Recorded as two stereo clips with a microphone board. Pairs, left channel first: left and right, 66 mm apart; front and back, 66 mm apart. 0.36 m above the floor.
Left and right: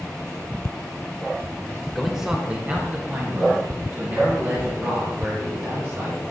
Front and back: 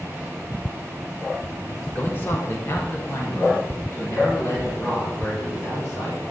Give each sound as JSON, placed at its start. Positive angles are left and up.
{"t": 1.9, "sound": "a man speaking", "azimuth_deg": 10, "distance_m": 0.9}